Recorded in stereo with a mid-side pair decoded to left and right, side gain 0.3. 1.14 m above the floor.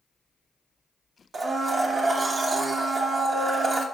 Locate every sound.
1.3 s a blender: 60° right, 0.8 m